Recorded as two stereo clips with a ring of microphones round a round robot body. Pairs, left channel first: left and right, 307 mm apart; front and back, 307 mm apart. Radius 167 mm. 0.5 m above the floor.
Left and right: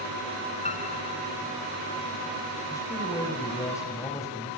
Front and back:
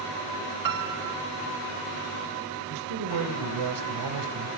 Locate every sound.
0.7 s a piano: 160° left, 1.2 m
2.7 s a man speaking: 170° left, 3 m